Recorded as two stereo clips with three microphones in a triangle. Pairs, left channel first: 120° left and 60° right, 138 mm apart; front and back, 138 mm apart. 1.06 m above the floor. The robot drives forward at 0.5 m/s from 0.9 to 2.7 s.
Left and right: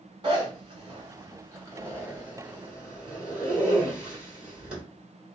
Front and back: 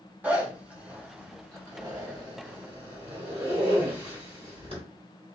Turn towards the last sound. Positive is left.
turn(degrees=-140)